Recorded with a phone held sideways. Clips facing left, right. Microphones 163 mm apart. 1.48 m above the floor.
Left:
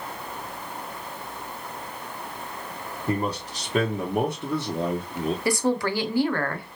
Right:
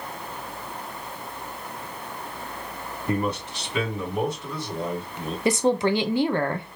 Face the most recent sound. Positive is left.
turn(degrees=-20)  # may be behind; listen again after turning